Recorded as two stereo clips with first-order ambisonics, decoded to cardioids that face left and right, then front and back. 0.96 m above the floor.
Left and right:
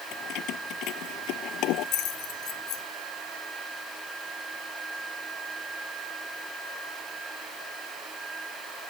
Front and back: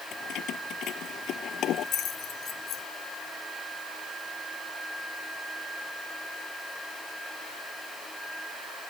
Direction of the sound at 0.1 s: 50° left.